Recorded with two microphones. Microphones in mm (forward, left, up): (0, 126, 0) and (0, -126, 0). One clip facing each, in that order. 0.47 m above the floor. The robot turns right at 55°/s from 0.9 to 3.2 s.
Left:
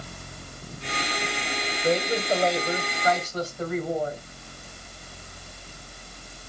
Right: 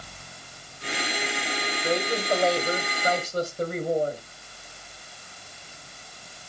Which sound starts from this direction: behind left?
A woman speaking, at 1.8 s.